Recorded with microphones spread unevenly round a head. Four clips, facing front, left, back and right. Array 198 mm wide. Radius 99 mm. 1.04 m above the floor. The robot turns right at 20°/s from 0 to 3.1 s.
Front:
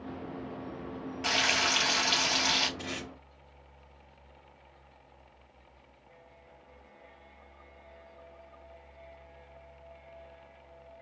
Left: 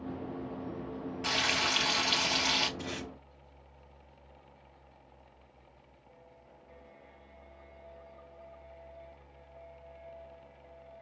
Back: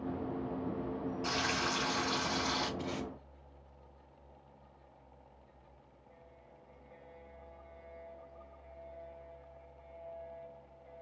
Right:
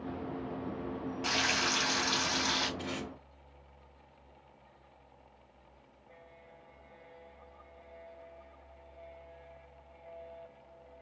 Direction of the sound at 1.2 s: 10° left.